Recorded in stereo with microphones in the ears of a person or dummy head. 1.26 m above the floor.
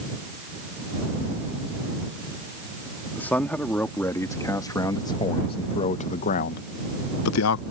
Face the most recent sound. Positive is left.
turn(degrees=85)